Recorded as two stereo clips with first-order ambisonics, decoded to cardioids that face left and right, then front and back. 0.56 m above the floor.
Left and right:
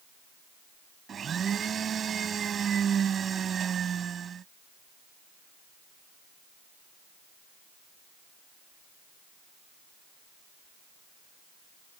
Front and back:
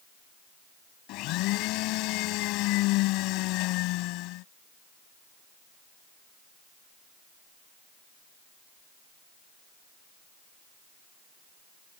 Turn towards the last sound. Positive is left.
turn(degrees=-25)